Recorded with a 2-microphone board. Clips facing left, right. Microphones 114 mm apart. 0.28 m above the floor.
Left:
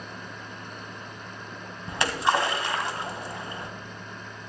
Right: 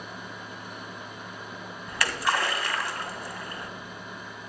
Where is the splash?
25° left (ahead or behind), 1.4 m.